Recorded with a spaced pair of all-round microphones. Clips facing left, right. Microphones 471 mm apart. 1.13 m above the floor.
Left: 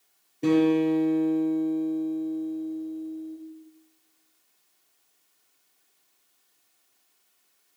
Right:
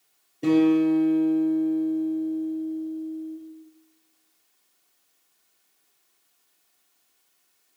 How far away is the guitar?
About 5.5 m.